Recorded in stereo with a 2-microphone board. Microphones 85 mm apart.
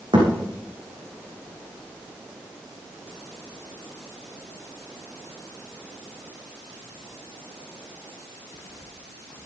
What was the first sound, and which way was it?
A thud, 70° right (ahead or behind).